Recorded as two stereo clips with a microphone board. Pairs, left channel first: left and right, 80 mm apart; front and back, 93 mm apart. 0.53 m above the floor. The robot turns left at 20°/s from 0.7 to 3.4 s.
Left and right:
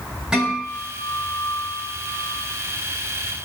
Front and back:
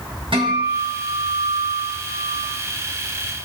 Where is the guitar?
170° right, 4 m; by 2.5 s 155° left, 4 m.